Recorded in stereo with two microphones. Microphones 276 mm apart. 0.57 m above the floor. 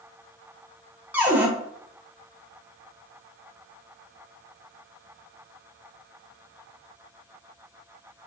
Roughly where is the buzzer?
I don't hear a buzzer.